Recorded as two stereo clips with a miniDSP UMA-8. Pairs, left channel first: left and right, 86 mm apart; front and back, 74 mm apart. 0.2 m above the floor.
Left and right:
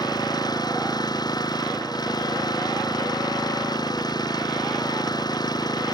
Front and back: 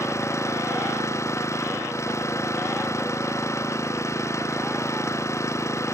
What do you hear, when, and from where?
0.0 s an engine running: 50° left